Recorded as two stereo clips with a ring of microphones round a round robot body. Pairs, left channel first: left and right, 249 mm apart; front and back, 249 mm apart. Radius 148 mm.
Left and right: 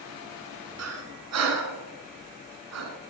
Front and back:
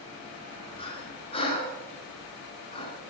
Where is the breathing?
70° right, 1.3 m.